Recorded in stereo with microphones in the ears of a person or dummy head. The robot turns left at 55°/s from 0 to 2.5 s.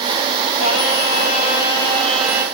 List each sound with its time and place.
0.6 s singing: 90° left, 1.2 m; by 2.5 s 10° right, 1.2 m